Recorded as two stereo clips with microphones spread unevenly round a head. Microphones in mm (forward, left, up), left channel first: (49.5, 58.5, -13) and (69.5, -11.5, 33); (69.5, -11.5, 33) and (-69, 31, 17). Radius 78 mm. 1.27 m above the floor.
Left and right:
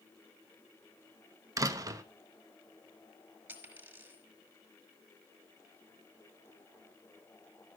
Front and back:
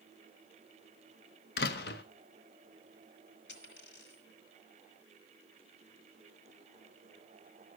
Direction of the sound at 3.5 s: 20° right.